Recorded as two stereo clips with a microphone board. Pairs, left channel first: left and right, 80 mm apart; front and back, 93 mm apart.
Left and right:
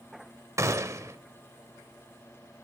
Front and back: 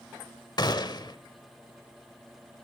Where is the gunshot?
40° right, 1.1 m.